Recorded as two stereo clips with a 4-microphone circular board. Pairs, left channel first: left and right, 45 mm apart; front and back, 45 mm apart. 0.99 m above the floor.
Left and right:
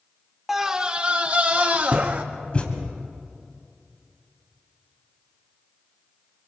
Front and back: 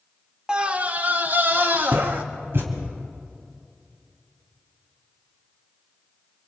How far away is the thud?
About 3 m.